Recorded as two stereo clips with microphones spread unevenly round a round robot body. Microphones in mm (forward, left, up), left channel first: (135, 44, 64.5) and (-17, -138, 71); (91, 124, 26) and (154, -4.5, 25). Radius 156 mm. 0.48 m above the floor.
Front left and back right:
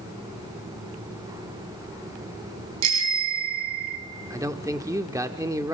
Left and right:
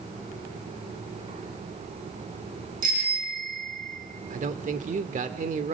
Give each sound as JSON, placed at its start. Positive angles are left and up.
{"t": 2.8, "sound": "a bicycle bell", "azimuth_deg": -120, "distance_m": 3.5}
{"t": 4.3, "sound": "a man speaking", "azimuth_deg": -55, "distance_m": 1.1}